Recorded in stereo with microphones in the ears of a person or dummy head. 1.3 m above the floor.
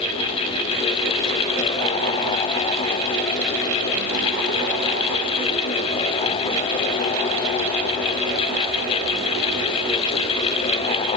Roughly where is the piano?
I don't hear a piano.